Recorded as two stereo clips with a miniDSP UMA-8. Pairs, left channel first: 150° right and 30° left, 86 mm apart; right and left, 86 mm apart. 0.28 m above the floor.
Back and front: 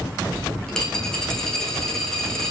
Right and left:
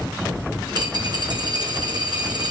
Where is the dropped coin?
125° left, 3 m.